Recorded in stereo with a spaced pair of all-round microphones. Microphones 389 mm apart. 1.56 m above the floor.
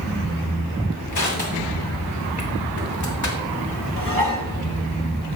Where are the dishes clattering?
55° right (ahead or behind), 1.4 m.